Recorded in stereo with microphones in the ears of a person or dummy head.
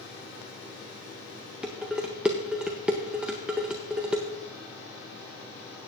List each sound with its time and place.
1.6 s dishes clattering: 5° right (ahead or behind), 0.6 m